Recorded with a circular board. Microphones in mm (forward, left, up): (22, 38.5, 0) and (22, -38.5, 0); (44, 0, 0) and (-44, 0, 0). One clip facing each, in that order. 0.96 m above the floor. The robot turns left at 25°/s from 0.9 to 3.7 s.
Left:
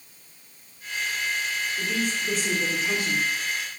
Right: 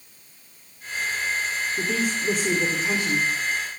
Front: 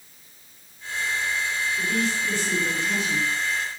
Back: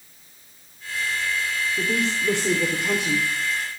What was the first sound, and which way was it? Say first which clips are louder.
A woman speaking: right 3 dB, back 2 dB; 135° right.